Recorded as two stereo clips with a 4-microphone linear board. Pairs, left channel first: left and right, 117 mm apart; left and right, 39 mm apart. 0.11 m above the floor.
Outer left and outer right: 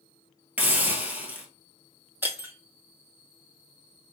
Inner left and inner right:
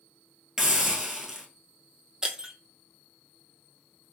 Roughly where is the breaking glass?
Centre.